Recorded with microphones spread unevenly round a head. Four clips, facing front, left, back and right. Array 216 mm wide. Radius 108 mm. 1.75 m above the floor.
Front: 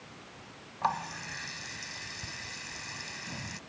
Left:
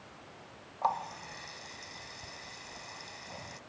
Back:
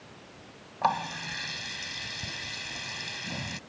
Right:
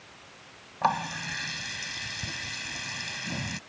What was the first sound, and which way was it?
A running tap, 100° right.